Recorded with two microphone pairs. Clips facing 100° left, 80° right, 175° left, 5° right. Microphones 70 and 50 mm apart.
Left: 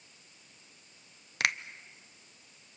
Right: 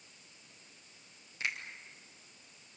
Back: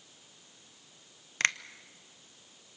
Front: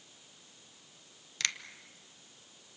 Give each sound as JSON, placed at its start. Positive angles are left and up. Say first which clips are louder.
{"t": 1.4, "sound": "a finger snap", "louder": "left 7 dB, back 7 dB", "azimuth_deg": 120, "distance_m": 0.7}